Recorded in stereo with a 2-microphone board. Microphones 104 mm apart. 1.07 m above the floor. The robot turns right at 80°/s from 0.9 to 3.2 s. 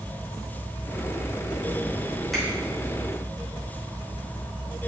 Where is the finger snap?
Centre (ahead or behind), 3 m; by 2.5 s 10° right (ahead or behind), 3 m.